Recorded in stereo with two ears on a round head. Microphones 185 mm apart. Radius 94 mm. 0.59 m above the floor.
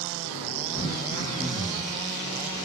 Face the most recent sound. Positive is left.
turn(degrees=15)  # may be behind; listen again after turning